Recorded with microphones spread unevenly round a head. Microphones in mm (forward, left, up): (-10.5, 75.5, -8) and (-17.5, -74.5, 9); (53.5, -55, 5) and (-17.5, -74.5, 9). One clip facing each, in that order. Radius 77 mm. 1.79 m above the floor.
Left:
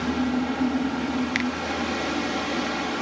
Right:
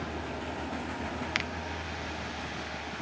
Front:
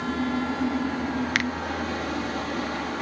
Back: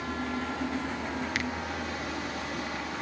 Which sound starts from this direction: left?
A fan, at 0.0 s.